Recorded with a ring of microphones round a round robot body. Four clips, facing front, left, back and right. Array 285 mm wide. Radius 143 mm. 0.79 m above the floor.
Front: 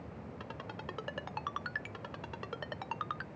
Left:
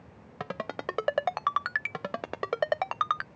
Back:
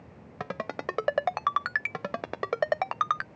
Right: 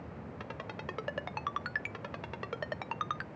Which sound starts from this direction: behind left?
A ringtone, at 0.4 s.